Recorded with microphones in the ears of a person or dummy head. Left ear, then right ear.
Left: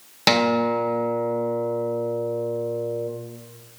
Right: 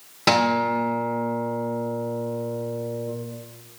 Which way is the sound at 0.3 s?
20° left (ahead or behind).